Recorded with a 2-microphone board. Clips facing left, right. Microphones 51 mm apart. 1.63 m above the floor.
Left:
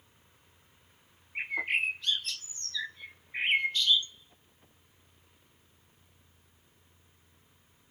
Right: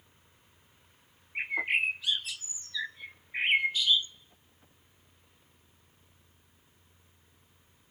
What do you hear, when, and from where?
1.4 s a bird: 5° right (ahead or behind), 0.5 m